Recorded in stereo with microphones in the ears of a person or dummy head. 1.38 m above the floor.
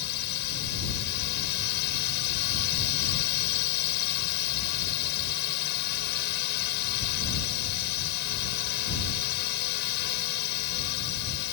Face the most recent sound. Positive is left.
turn(degrees=60)  # may be behind; listen again after turning